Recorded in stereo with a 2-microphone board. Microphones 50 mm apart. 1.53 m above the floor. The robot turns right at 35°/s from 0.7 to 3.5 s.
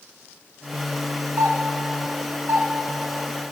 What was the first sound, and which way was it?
A doorbell, 80° right.